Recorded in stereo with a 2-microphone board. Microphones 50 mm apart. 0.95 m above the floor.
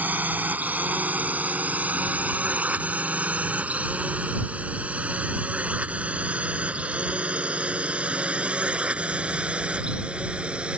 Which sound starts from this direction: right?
A drone, at 0.0 s.